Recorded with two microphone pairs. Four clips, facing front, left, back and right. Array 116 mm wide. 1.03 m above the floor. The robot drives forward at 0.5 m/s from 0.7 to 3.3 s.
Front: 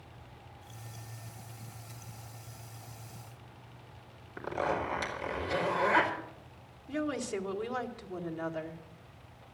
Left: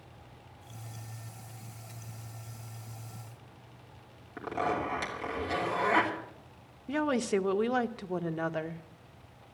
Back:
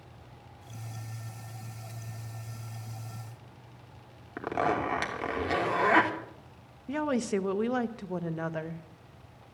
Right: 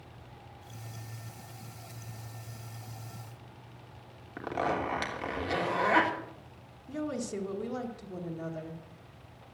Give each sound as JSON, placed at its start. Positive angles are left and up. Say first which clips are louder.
{"t": 4.4, "sound": "a zipper", "louder": "even, back 4 dB", "azimuth_deg": -165, "distance_m": 3.0}
{"t": 6.9, "sound": "a woman speaking", "louder": "left 6 dB, back 5 dB", "azimuth_deg": 110, "distance_m": 1.1}